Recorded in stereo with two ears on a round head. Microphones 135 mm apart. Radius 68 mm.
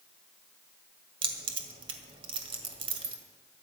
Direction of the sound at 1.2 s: 35° right (ahead or behind).